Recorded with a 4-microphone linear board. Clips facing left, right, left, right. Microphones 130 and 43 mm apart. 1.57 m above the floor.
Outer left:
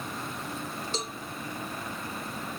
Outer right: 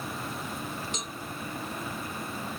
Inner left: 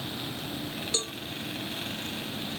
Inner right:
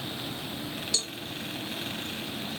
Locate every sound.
0.9 s a cowbell: 35° left (ahead or behind)